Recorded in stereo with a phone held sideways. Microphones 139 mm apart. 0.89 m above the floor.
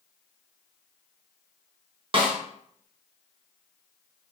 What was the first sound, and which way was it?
A snare drum, 40° right (ahead or behind).